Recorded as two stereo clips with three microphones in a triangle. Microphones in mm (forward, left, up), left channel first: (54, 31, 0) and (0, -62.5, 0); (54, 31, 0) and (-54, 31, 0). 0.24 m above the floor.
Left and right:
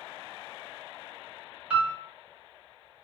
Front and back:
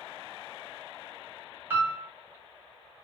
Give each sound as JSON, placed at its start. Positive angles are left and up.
{"t": 1.7, "sound": "a piano", "azimuth_deg": -170, "distance_m": 0.9}